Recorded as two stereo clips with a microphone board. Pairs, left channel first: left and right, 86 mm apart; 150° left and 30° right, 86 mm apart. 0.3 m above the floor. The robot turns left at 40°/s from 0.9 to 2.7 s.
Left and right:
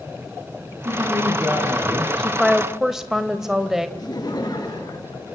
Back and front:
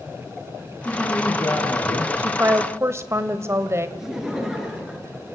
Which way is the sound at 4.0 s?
55° left.